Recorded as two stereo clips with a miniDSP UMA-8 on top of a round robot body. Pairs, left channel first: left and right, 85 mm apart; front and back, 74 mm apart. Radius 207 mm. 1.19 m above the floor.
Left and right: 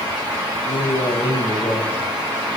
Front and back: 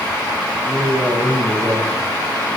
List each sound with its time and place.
0.6 s a man speaking: 100° left, 1.8 m; by 2.6 s 160° left, 2.5 m